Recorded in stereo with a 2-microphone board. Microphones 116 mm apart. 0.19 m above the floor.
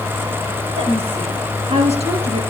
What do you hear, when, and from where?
0.8 s a woman speaking: 60° right (ahead or behind), 5 m; by 2.4 s 70° right (ahead or behind), 3.5 m